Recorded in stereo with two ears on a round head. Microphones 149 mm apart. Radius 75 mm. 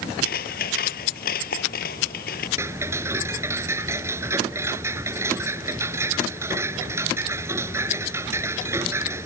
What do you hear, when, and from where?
0.2 s scissors: 55° left (ahead or behind)
2.6 s ticking: 15° right (ahead or behind)